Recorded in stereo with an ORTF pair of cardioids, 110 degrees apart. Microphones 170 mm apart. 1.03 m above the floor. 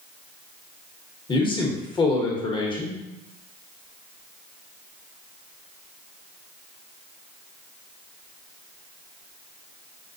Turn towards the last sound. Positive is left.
turn(degrees=30)